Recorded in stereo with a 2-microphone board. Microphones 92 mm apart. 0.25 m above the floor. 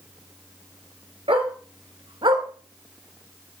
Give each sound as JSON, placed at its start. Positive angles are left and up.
{"t": 1.3, "sound": "a dog barking", "side_deg": -80, "distance_m": 2.0}